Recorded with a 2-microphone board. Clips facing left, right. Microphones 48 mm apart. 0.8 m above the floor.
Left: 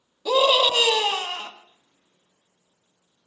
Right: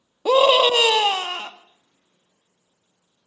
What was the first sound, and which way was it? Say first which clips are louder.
A scream: right 4 dB; 40° right (ahead or behind).